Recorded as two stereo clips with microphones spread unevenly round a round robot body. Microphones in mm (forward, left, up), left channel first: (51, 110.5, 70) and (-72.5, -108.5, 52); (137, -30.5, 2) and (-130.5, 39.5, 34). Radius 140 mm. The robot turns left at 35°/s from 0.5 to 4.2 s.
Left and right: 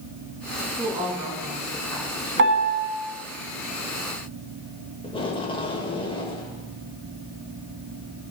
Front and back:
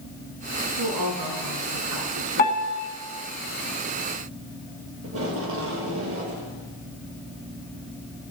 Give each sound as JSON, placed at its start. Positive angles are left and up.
{"t": 0.8, "sound": "a woman speaking", "azimuth_deg": -175, "distance_m": 4.5}
{"t": 2.4, "sound": "a piano", "azimuth_deg": -75, "distance_m": 1.5}
{"t": 5.0, "sound": "tape being pulled", "azimuth_deg": 130, "distance_m": 1.5}